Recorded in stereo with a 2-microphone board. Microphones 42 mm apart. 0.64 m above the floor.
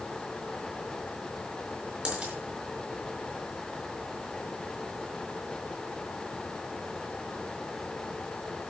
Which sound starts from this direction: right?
A dropped coin, at 2.0 s.